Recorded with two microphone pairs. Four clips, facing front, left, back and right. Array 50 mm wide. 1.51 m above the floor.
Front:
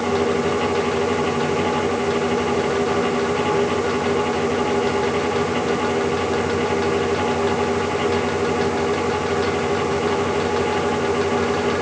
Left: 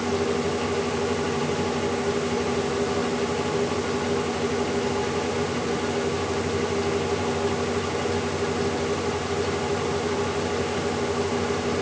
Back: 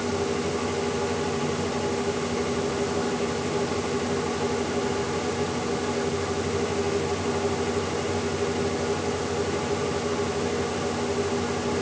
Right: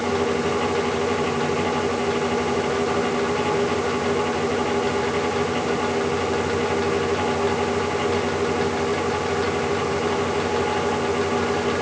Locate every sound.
Only background noise.